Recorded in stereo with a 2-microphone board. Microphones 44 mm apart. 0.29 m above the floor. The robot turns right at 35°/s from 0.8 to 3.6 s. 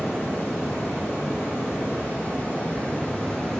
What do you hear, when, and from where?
0.0 s running water: 70° left, 1.9 m; by 3.6 s 170° left, 1.9 m